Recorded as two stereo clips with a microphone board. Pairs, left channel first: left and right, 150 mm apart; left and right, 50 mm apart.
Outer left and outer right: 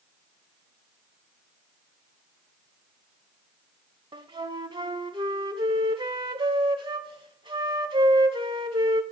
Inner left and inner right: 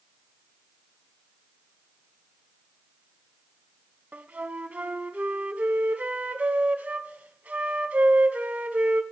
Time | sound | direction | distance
4.1 | a flute | 35° right (ahead or behind) | 0.8 m